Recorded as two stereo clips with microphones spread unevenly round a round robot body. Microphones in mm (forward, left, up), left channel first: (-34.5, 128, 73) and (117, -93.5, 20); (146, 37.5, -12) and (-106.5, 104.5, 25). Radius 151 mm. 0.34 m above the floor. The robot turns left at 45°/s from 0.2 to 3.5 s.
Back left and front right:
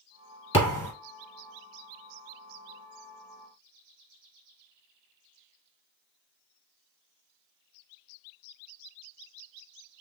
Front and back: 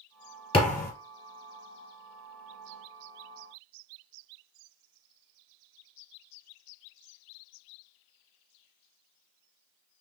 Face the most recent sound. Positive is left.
turn(degrees=-80)